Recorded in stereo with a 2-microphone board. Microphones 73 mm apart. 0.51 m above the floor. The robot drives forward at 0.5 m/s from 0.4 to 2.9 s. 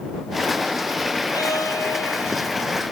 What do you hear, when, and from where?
1.3 s a violin: 60° left (ahead or behind), 1.5 m; by 2.6 s 40° left (ahead or behind), 1.9 m